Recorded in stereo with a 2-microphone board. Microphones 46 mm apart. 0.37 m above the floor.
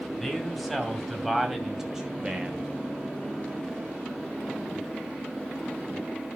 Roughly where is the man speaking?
Centre.